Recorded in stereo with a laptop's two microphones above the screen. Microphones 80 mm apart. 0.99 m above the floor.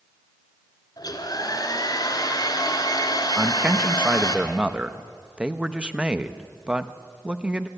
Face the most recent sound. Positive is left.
turn(degrees=-15)  # may be behind; listen again after turning